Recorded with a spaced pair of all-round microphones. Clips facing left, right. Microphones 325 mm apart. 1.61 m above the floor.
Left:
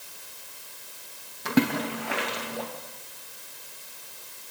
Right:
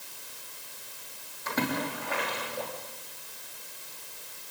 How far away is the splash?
About 2.5 m.